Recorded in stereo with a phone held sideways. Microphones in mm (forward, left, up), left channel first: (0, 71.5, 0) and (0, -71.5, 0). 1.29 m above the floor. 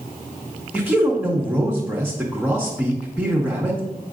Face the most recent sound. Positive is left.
turn(degrees=-5)  # may be behind; listen again after turning